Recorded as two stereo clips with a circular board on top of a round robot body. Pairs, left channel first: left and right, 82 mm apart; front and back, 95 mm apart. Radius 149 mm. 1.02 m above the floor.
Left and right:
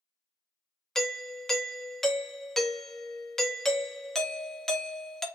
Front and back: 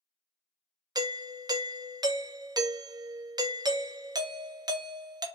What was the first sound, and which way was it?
A doorbell, 175° left.